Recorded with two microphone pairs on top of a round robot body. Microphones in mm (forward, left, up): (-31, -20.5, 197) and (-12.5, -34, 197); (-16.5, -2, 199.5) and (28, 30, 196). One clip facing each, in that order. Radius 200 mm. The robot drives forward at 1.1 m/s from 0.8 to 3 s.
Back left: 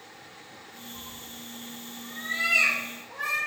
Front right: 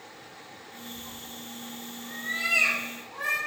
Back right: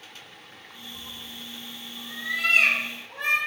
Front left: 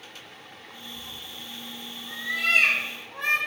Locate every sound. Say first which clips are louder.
0.9 s a cat meowing: front right 1 dB, back right 2 dB; 175° right, 1.3 m; by 3.4 s straight behind, 3.5 m